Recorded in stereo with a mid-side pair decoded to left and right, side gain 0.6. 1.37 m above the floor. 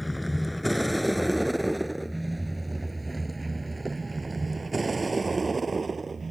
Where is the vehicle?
5° left; by 6.3 s 20° right.